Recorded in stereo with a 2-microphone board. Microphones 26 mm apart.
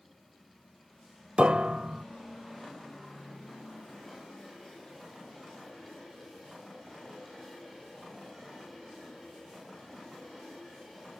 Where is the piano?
50° right (ahead or behind).